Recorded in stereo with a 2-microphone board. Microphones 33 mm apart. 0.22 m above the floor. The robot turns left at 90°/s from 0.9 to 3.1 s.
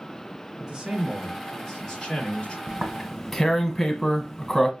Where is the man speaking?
20° right (ahead or behind), 1.4 m; by 2.6 s 25° left (ahead or behind), 1.4 m.